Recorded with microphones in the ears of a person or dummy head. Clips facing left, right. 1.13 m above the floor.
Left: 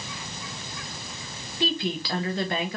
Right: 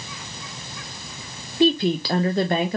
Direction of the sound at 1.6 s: 30° right (ahead or behind).